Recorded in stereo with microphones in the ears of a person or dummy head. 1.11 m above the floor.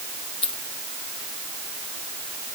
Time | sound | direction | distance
0.4 | a dropped coin | 30° left (ahead or behind) | ?